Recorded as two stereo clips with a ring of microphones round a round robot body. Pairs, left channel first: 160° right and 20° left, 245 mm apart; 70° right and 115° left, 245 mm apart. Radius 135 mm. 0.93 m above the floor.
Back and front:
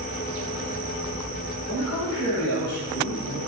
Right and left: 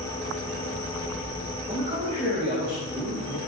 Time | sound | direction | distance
1.7 | a man speaking | 175° left | 5 m